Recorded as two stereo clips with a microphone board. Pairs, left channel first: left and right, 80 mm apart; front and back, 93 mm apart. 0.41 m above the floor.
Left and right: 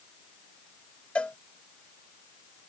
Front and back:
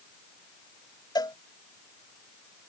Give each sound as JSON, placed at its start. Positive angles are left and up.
{"t": 1.1, "sound": "a cowbell", "azimuth_deg": 20}